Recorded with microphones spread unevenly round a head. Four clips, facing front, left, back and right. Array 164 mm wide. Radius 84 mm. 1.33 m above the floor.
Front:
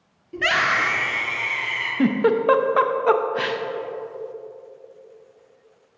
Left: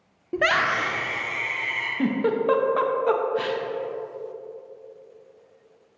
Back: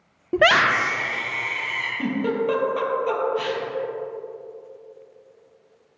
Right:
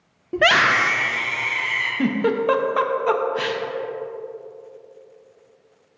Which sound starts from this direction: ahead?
A giggle, at 2.0 s.